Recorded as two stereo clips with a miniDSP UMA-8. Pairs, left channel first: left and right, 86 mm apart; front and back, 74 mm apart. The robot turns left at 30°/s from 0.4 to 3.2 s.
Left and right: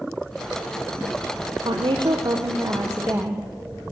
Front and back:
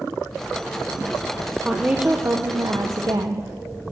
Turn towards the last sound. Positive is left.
turn(degrees=-155)